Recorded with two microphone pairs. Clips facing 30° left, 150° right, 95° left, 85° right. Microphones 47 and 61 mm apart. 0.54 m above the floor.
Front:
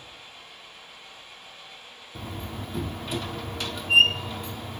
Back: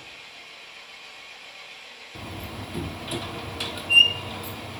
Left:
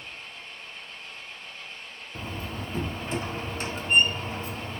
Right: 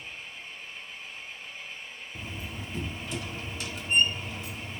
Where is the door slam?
120° left, 0.5 m.